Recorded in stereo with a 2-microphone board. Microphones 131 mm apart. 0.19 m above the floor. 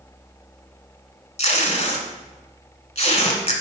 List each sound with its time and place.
1.4 s tape being pulled: 55° left (ahead or behind), 1.5 m